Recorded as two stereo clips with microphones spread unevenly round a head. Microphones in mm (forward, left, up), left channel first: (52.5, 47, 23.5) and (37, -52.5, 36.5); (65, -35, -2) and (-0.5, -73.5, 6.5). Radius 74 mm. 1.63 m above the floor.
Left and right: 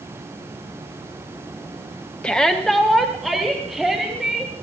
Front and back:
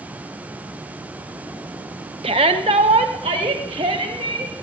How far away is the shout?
About 0.9 m.